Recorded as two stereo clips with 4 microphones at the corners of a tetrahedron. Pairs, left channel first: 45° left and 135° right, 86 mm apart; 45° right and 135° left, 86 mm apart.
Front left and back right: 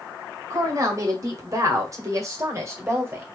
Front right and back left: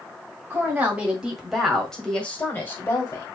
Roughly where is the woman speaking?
Behind.